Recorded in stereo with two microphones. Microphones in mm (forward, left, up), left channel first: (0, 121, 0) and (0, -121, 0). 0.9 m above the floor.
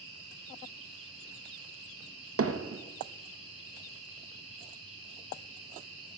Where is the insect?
65° right (ahead or behind), 2.5 m.